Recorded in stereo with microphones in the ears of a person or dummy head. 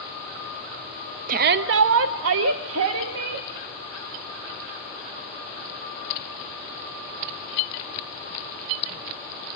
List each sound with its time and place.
1.3 s a shout: 45° right (ahead or behind), 0.6 m; by 3.5 s 70° right (ahead or behind), 1.5 m